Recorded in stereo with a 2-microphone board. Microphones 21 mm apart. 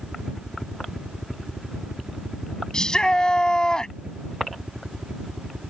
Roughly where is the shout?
Left.